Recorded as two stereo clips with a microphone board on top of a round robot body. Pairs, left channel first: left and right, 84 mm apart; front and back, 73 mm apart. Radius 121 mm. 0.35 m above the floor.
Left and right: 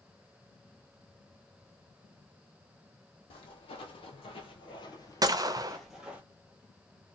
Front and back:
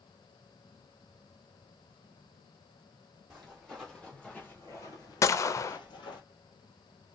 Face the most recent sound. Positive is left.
turn(degrees=-45)